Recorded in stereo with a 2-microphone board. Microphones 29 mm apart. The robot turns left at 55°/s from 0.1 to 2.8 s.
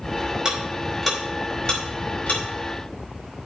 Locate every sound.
0.5 s ticking: 25° right (ahead or behind), 4.5 m; by 2.4 s 75° left (ahead or behind), 4.5 m